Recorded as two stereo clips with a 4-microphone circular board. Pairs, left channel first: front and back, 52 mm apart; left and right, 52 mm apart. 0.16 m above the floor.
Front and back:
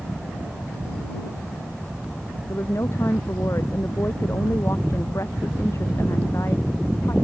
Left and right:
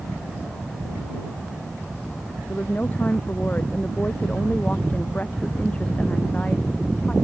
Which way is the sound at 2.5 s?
35° left.